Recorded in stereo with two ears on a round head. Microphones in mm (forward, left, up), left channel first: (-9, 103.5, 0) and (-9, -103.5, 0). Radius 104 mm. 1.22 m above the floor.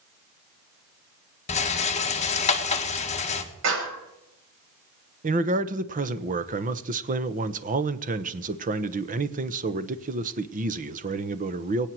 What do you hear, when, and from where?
1.5 s a rattle: 30° left (ahead or behind), 1.5 m
3.6 s a clap: 55° right (ahead or behind), 6.5 m
5.2 s a man speaking: 35° right (ahead or behind), 1.0 m